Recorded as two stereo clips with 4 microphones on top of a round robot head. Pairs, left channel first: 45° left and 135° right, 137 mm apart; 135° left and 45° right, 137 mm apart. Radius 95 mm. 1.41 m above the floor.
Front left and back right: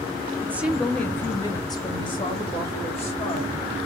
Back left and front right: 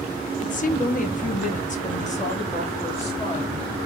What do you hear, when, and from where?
0.4 s a woman speaking: 155° left, 0.6 m; by 3.5 s 90° left, 1.8 m